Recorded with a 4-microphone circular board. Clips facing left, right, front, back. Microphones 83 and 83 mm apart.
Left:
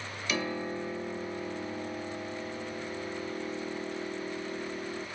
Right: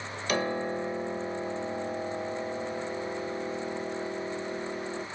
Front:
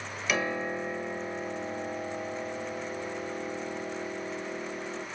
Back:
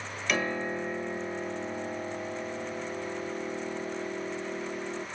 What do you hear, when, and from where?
0.3 s a piano: 85° right, 0.9 m